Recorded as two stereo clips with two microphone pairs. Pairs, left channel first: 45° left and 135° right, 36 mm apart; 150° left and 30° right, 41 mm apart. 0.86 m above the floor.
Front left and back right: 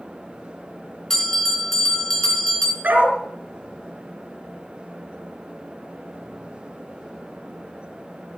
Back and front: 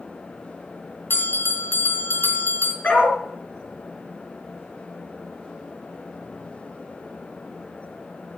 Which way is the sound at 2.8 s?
160° right.